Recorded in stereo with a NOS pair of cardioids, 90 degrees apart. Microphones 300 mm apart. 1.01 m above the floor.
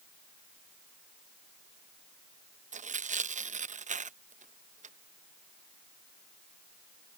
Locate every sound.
2.7 s tearing paper: 25° right